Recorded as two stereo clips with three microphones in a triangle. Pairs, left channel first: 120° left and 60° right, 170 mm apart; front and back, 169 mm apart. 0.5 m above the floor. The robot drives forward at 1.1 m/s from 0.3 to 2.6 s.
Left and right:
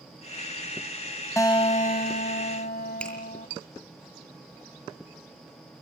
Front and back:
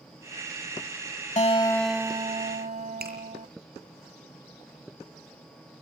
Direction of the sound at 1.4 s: 50° left.